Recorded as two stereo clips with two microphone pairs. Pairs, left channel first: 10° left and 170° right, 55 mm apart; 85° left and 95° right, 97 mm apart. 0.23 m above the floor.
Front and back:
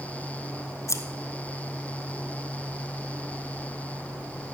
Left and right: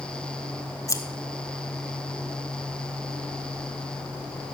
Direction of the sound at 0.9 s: 30° left.